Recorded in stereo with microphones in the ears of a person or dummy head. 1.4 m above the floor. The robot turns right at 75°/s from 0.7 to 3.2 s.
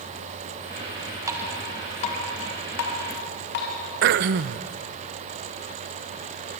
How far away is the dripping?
About 4 m.